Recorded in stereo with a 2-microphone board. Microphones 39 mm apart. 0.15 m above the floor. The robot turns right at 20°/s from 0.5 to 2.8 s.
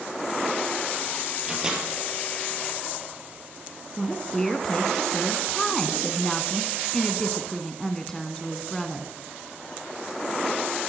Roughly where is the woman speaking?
Centre.